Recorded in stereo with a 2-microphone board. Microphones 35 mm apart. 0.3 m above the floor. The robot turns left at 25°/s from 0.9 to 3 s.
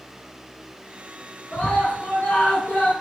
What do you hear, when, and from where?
1.5 s a scream: 105° left, 3.5 m; by 2.9 s 70° left, 3.5 m